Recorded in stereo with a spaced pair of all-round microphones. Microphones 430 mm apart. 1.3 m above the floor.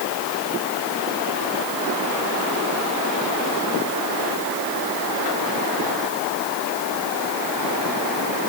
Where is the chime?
I don't hear a chime.